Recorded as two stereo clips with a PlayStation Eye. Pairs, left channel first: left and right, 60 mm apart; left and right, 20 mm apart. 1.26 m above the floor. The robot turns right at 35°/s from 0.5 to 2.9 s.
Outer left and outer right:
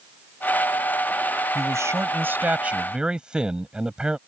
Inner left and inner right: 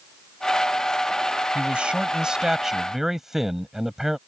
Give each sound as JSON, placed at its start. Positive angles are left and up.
{"t": 1.6, "sound": "a man speaking", "azimuth_deg": -60}